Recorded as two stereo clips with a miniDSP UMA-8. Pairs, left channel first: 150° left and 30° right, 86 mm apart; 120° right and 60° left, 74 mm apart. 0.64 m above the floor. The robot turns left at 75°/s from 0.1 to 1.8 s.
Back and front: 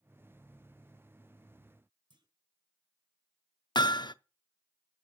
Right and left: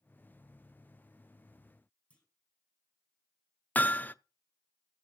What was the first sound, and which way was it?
A clunk, 45° right.